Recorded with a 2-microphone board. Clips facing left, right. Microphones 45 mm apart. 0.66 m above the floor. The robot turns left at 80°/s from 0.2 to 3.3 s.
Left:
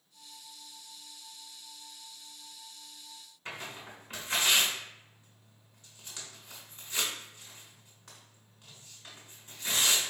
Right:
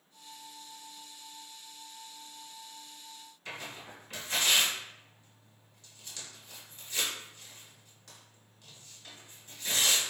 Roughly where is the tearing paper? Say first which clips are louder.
Left 1 dB; left.